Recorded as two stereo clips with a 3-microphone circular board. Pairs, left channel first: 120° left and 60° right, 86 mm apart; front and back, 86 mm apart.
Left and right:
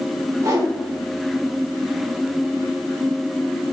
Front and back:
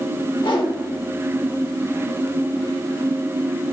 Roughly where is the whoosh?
Ahead.